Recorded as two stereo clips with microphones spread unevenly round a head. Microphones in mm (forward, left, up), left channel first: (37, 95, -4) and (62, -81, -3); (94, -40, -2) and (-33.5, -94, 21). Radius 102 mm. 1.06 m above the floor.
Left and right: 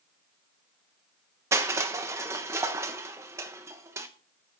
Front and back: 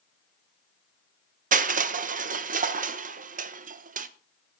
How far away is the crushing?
About 0.9 m.